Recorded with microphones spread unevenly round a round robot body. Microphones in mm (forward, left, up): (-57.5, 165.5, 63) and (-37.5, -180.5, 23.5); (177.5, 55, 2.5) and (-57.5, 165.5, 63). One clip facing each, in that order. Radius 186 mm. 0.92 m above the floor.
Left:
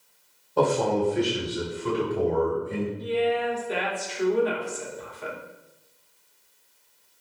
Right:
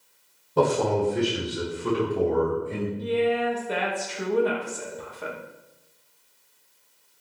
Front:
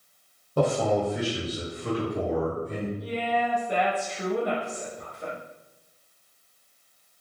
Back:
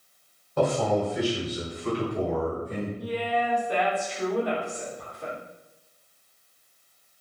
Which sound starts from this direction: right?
A woman speaking, at 3.0 s.